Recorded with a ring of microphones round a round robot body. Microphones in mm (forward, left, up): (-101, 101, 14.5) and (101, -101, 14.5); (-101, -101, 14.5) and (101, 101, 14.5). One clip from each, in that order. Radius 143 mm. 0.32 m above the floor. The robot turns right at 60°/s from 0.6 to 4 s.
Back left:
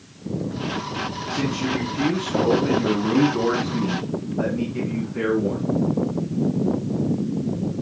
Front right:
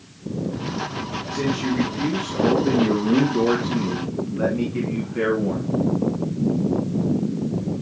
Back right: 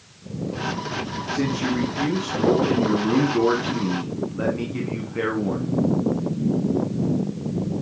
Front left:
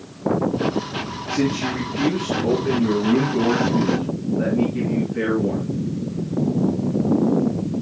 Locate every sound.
1.3 s a man speaking: 70° left, 3 m; by 5.7 s 125° right, 3 m